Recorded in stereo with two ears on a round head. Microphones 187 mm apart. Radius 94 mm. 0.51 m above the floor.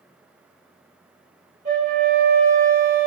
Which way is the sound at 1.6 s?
45° right (ahead or behind).